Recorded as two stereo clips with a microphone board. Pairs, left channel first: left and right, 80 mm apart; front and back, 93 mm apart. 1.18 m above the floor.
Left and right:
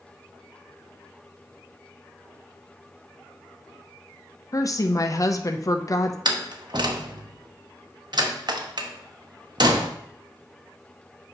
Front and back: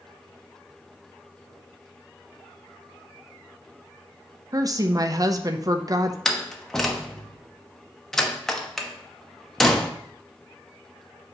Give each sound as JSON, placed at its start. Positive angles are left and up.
{"t": 4.5, "sound": "a woman speaking", "azimuth_deg": 130, "distance_m": 0.5}
{"t": 6.2, "sound": "a door slam", "azimuth_deg": -85, "distance_m": 0.8}